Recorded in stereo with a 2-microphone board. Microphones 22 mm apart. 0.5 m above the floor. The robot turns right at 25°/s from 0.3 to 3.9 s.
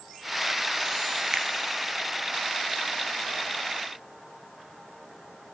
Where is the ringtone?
No ringtone in this recording.